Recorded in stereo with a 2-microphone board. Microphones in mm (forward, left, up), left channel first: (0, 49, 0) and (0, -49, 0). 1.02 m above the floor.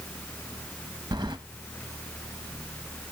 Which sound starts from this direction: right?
Keys jangling, at 1.1 s.